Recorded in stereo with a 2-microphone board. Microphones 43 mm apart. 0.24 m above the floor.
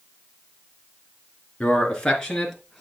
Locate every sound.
1.6 s a man speaking: 20° left (ahead or behind), 3.5 m; by 2.8 s 5° left (ahead or behind), 4.5 m